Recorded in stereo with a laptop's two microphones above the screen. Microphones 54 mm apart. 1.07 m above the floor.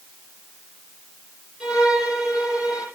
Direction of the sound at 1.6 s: 15° right (ahead or behind).